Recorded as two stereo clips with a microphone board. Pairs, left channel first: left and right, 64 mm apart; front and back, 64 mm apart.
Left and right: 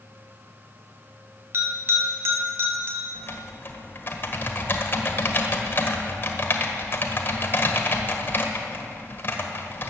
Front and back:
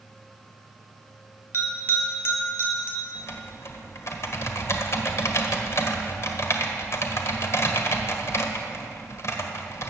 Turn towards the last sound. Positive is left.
turn(degrees=35)